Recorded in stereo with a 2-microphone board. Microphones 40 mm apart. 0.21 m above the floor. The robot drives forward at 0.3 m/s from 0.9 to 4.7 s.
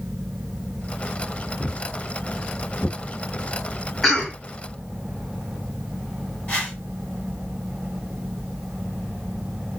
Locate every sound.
1.6 s footsteps: 70° left (ahead or behind), 0.7 m; by 3.0 s 5° right (ahead or behind), 1.2 m
4.0 s a cough: centre (ahead or behind), 1.4 m
6.5 s a whoosh: 30° left (ahead or behind), 1.1 m